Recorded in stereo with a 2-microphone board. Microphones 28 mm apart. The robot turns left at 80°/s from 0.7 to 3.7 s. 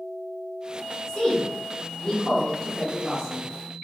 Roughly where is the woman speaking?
Centre.